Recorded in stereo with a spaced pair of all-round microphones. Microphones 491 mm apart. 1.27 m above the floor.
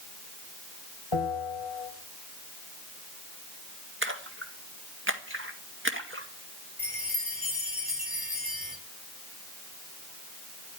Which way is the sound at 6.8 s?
45° left (ahead or behind).